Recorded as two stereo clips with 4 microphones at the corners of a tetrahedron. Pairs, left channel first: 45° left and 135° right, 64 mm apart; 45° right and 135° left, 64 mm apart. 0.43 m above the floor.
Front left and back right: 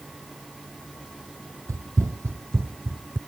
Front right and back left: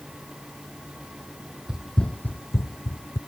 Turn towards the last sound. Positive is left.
turn(degrees=-75)